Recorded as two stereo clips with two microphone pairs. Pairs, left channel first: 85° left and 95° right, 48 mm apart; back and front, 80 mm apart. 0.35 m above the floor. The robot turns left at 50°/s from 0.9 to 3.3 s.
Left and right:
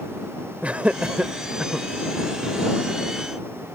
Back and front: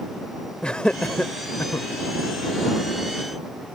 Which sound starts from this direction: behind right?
Laughter, at 0.6 s.